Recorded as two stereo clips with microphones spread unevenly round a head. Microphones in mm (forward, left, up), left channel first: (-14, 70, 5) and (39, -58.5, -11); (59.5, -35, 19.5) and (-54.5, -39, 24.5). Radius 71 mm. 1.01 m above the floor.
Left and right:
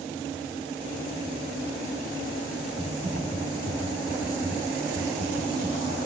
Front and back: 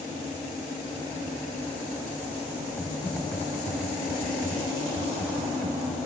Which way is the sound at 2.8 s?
70° right.